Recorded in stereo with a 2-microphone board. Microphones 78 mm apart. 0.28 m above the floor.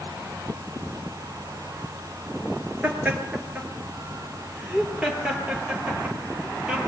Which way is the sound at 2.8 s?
15° right (ahead or behind).